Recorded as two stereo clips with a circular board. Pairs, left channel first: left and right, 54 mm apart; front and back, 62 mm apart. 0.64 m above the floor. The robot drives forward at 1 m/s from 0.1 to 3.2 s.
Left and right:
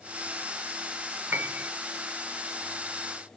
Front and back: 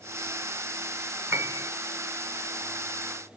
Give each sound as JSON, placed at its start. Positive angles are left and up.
{"t": 1.3, "sound": "a piano", "azimuth_deg": -135, "distance_m": 0.9}